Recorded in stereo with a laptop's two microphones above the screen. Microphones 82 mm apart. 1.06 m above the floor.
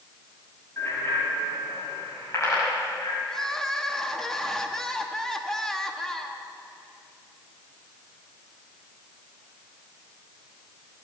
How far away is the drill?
I don't hear a drill.